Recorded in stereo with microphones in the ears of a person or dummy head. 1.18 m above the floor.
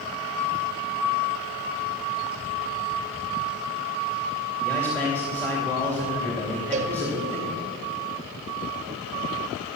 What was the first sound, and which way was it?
A man speaking, 10° left (ahead or behind).